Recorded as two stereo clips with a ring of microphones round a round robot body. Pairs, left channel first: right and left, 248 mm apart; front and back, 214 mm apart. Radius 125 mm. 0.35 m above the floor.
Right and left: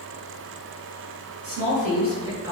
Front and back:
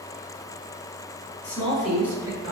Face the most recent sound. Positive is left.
turn(degrees=165)